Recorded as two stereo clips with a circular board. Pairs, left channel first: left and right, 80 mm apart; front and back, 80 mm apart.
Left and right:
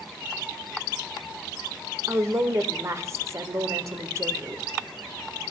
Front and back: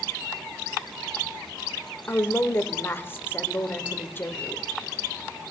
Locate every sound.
2.1 s a woman speaking: 55° right, 1.0 m